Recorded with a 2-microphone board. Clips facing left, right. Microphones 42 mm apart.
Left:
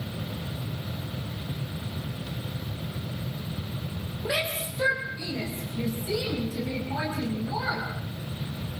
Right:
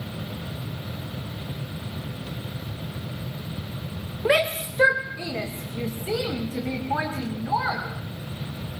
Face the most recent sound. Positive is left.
turn(degrees=-35)  # may be behind; listen again after turning